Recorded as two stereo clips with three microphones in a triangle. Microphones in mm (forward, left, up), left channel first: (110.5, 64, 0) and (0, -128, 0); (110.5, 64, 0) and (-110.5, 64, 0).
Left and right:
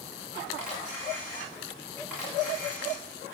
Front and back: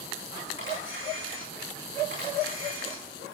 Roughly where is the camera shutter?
Behind left.